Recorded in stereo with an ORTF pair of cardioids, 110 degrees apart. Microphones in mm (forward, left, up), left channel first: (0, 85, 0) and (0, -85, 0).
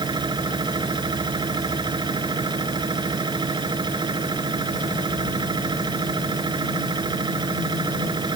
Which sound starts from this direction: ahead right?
A machine running, at 0.0 s.